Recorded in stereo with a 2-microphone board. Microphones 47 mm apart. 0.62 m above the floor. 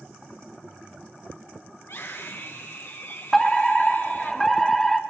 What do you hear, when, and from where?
1.8 s a scream: 75° left (ahead or behind), 5 m
3.3 s a fire alarm: 10° left (ahead or behind), 2 m